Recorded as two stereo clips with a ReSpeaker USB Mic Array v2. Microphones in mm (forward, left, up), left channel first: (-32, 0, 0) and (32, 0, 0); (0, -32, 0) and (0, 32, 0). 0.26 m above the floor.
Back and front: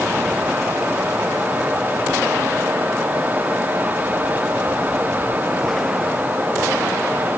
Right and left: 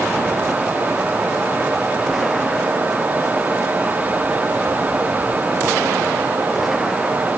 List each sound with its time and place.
Only background noise.